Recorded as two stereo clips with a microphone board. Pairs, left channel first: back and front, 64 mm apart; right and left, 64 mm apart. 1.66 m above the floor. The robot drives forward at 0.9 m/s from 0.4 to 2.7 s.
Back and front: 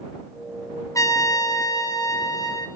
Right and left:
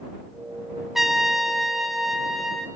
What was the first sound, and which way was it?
A trumpet, 175° left.